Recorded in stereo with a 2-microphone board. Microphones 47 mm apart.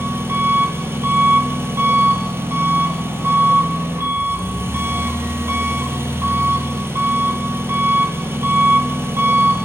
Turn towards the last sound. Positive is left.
turn(degrees=-65)  # may be behind; listen again after turning